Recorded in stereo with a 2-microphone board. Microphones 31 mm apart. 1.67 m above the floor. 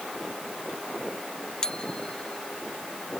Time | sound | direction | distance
1.6 | a bicycle bell | 25° left (ahead or behind) | ?